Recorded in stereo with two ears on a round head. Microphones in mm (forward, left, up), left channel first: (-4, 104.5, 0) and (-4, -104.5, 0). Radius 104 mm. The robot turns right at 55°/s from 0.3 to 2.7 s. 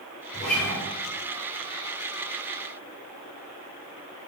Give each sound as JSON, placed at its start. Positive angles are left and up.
{"t": 0.3, "sound": "a guitar", "side_deg": 0, "distance_m": 1.1}